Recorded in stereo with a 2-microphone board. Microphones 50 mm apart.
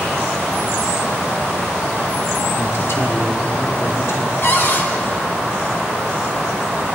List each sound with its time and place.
2.6 s a man speaking: 55° left (ahead or behind), 1.2 m; by 4.3 s 65° left (ahead or behind), 2 m
4.4 s a cupboard door: 50° left (ahead or behind), 1.7 m